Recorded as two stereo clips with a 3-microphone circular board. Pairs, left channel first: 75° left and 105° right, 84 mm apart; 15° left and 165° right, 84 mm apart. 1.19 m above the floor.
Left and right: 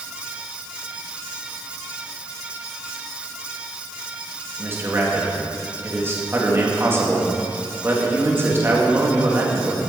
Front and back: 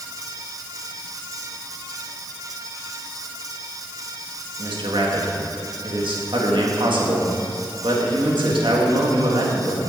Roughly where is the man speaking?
Behind.